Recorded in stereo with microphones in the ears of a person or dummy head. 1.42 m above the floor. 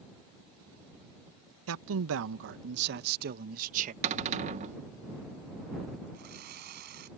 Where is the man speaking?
85° right; by 3.9 s 45° right (ahead or behind).